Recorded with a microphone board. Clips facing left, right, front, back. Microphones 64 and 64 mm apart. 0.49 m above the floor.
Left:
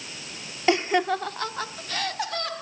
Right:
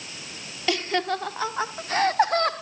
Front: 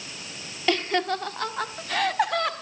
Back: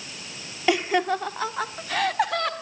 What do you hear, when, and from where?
0.7 s laughter: 120° left, 0.8 m; by 2.5 s 90° right, 1.1 m